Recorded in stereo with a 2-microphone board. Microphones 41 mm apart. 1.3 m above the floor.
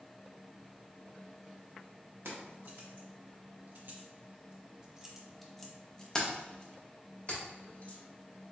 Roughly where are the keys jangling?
Right.